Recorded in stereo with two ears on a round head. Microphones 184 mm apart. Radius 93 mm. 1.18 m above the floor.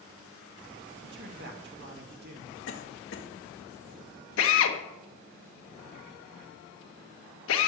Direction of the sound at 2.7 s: 65° left (ahead or behind).